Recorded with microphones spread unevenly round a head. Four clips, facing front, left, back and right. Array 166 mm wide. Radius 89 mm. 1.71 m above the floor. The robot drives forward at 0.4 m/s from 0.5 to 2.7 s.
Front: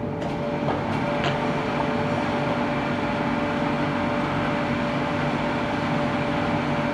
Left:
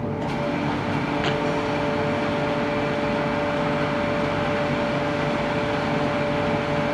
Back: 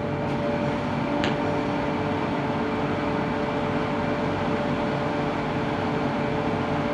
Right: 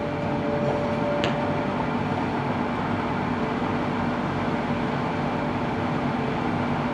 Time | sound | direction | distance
1.2 | tapping | 135° right | 2.5 m